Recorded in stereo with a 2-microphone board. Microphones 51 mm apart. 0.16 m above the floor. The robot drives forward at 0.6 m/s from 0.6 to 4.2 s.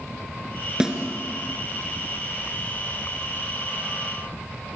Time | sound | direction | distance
0.8 | a snare drum | 15° right (ahead or behind) | 3 m